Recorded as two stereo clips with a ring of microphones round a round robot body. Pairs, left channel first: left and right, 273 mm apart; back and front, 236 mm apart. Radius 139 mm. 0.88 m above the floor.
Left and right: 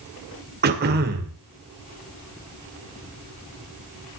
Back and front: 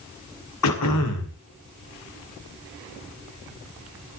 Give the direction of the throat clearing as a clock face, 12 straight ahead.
5 o'clock.